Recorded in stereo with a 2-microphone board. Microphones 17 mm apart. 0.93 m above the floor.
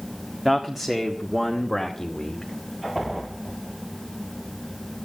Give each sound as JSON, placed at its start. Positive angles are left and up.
{"t": 0.5, "sound": "a man speaking", "side_deg": -25, "distance_m": 1.6}